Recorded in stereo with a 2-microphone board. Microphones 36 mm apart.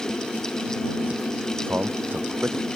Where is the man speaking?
65° right (ahead or behind).